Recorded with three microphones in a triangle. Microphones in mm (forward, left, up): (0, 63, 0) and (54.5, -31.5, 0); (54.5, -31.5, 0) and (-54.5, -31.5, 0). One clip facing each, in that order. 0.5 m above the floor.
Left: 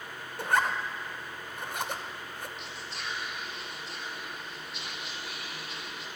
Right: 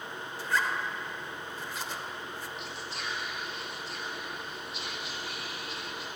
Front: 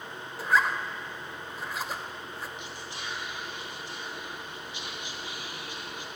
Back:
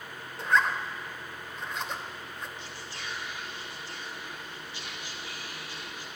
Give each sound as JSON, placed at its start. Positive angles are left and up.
{"t": 0.4, "sound": "a zipper", "azimuth_deg": 85, "distance_m": 0.5}
{"t": 2.6, "sound": "whispering", "azimuth_deg": 30, "distance_m": 0.8}